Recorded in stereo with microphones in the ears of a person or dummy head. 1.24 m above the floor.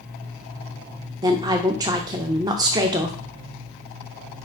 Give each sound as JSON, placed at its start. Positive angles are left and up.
{"t": 1.2, "sound": "a woman speaking", "side_deg": -25, "distance_m": 0.5}